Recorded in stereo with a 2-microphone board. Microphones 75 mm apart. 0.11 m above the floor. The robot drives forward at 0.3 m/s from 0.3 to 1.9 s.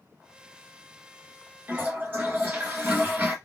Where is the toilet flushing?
30° right (ahead or behind), 1.0 m.